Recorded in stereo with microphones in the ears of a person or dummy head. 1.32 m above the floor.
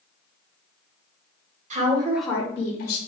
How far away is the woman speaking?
About 0.9 m.